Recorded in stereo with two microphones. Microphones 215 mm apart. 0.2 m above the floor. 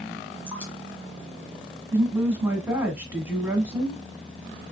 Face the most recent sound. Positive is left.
turn(degrees=-10)  # may be behind; listen again after turning